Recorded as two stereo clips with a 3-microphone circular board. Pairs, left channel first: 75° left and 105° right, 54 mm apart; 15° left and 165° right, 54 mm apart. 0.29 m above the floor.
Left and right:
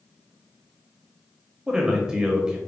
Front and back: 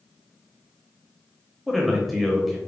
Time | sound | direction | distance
1.7 | a man speaking | 75° right | 0.9 m